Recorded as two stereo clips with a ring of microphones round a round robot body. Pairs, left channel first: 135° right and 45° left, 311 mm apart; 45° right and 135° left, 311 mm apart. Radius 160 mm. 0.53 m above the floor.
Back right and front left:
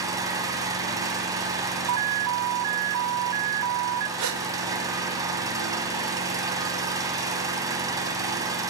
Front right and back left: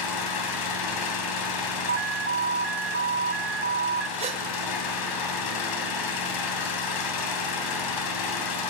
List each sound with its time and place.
0.0 s an engine running: 35° right, 3 m
1.9 s an alarm: 80° left, 0.9 m
4.2 s a gasp: 65° left, 2.5 m